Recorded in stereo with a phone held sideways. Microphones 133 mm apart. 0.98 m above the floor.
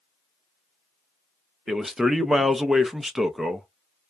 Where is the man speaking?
5° right (ahead or behind), 0.5 m.